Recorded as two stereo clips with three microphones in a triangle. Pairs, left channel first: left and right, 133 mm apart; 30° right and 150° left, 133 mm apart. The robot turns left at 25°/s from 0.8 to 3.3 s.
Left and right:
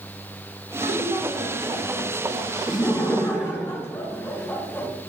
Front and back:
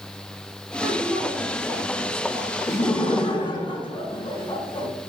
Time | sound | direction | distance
0.8 | a woman speaking | 95° right | 5 m
2.7 | laughter | 35° left | 3 m